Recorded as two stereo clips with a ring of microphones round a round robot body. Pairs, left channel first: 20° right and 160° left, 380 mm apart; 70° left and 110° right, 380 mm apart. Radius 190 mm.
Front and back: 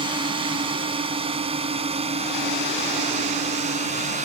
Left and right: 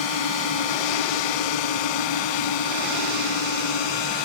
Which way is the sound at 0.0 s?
80° left.